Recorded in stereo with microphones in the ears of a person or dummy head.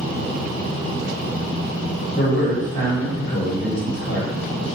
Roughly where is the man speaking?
Left.